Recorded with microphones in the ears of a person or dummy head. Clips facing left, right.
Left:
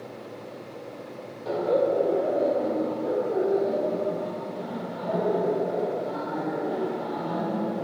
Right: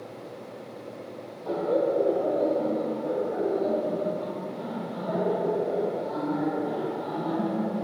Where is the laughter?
20° left (ahead or behind), 2 m; by 7.8 s 45° right (ahead or behind), 4.5 m.